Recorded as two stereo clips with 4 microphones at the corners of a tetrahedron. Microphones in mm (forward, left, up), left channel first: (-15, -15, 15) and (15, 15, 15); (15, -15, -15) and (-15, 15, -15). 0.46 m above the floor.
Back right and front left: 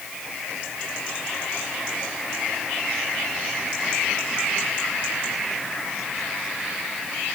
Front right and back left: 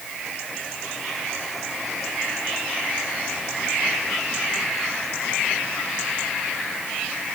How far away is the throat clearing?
I don't hear throat clearing.